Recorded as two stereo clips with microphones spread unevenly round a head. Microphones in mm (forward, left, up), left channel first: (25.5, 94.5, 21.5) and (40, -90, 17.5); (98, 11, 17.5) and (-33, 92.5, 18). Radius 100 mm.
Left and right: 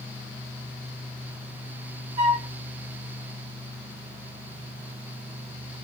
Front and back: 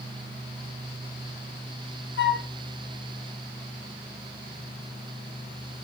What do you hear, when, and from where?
2.2 s a flute: 30° right, 2 m